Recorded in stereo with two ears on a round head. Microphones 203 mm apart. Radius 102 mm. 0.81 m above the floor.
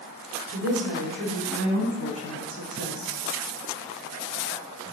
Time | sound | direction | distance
0.5 | a woman speaking | 55° right (ahead or behind) | 3.5 m